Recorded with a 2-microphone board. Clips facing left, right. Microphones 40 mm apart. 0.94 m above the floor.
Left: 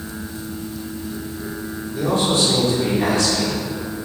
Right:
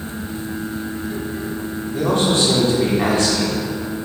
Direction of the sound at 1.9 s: 50° right (ahead or behind).